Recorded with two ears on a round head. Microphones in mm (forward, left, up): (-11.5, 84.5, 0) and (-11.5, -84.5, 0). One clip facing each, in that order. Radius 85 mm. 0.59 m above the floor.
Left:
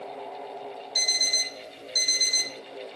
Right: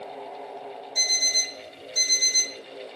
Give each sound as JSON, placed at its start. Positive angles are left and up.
{"t": 0.9, "sound": "an alarm clock", "side_deg": 75, "distance_m": 1.9}